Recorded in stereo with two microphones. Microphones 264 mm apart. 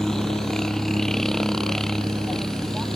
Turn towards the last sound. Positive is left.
turn(degrees=0)  # may be behind; listen again after turning